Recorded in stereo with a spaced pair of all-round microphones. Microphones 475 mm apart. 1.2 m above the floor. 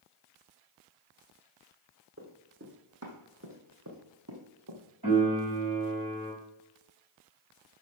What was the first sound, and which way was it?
Running footsteps, 25° right (ahead or behind).